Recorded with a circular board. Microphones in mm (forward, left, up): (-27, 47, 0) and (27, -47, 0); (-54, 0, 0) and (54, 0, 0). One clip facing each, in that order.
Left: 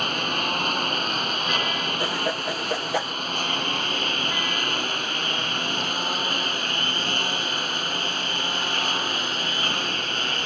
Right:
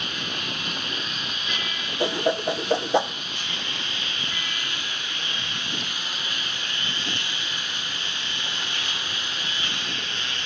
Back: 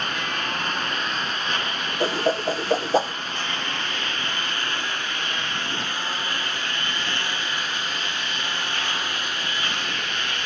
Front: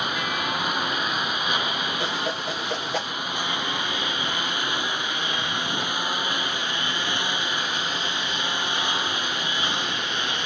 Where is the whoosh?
125° right.